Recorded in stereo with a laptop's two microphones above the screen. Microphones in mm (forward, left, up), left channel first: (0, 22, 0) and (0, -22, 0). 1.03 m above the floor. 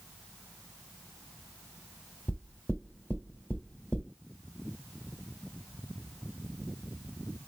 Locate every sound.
2.3 s knocking: 35° left (ahead or behind), 1.4 m